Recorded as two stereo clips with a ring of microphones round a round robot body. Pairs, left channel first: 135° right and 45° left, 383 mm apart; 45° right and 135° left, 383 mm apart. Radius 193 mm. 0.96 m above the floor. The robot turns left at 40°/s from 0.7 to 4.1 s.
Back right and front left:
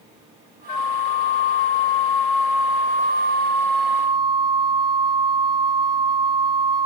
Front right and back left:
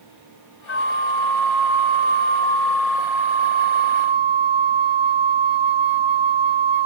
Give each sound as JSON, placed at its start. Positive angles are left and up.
{"t": 0.7, "sound": "a flute", "azimuth_deg": -100, "distance_m": 0.6}